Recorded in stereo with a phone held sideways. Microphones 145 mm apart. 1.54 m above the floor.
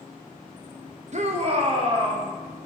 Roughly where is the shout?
Right.